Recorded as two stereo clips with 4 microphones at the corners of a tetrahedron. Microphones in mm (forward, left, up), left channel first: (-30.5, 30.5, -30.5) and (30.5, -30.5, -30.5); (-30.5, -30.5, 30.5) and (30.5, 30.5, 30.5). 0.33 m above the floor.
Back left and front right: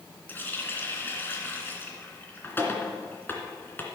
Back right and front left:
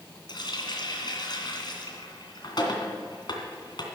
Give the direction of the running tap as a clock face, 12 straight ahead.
5 o'clock.